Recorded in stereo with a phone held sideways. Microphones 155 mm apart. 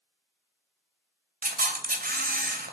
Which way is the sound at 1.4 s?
65° right (ahead or behind).